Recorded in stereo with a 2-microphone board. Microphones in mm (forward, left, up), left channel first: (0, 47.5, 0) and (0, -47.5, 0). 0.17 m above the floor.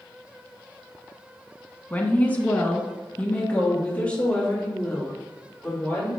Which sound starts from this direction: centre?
A woman speaking, at 1.9 s.